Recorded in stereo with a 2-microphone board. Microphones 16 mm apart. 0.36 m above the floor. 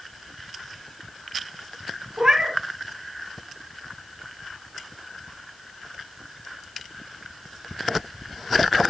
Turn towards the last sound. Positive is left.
turn(degrees=-35)  # may be behind; listen again after turning